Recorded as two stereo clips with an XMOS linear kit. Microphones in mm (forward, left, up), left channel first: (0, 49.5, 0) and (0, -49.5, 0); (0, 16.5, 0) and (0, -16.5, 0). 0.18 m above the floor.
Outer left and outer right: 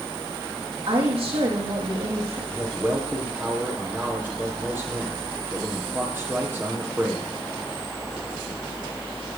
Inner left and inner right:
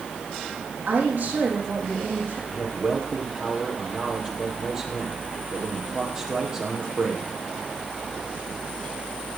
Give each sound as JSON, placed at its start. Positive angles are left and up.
{"t": 0.9, "sound": "a woman speaking", "side_deg": -70, "distance_m": 7.5}
{"t": 2.5, "sound": "a man speaking", "side_deg": -20, "distance_m": 4.5}